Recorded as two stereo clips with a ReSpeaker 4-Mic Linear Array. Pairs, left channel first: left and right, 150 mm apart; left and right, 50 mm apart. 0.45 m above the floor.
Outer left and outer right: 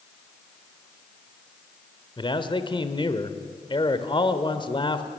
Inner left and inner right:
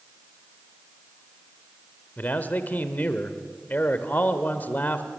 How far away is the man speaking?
About 1.4 m.